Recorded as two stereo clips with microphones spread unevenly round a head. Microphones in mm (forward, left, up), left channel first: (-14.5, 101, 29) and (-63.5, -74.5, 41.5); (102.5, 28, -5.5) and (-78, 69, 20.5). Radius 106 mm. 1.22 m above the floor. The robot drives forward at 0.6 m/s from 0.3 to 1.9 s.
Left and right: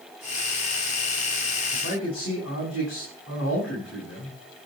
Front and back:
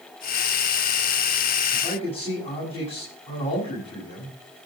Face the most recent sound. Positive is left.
turn(degrees=45)